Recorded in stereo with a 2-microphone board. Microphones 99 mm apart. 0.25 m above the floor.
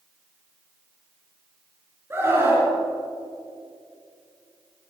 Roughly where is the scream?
Right.